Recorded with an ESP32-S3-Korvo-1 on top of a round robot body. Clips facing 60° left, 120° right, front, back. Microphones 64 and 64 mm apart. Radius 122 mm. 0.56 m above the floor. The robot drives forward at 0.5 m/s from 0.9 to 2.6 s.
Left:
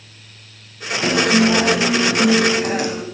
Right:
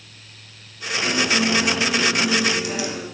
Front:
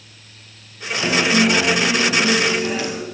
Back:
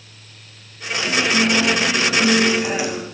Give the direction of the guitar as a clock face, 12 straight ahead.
10 o'clock.